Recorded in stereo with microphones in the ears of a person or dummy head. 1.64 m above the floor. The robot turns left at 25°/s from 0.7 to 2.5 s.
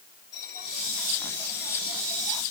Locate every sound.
0.3 s a bell: 20° left, 8.5 m; by 2.4 s 20° right, 8.5 m